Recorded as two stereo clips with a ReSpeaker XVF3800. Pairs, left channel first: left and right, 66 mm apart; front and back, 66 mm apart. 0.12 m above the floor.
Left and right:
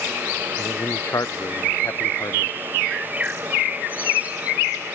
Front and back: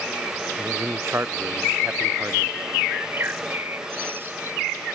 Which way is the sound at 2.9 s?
145° right.